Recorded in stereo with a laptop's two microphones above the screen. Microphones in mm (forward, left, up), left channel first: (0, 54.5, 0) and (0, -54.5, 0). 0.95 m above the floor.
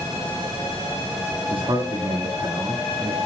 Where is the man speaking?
40° right (ahead or behind), 1.9 m.